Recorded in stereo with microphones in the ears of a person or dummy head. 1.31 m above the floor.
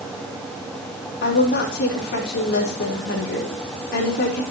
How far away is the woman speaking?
About 4 m.